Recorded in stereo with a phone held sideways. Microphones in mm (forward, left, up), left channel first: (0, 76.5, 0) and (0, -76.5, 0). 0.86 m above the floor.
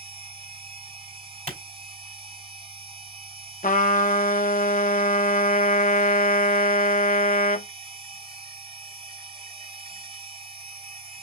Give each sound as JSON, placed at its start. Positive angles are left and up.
{"t": 0.0, "sound": "a machine running", "side_deg": -45, "distance_m": 2.5}
{"t": 1.5, "sound": "a clap", "side_deg": -50, "distance_m": 2.5}
{"t": 3.6, "sound": "a trumpet", "side_deg": 60, "distance_m": 0.6}